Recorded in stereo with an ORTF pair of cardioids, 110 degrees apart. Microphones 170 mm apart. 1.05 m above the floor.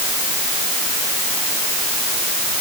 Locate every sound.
Only background noise.